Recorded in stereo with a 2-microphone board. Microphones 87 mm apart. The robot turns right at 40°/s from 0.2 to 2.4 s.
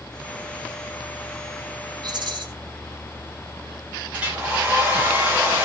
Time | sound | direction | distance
2.0 | a rattle | 55° right (ahead or behind) | 2.5 m
4.1 | a hair dryer | 15° right (ahead or behind) | 9 m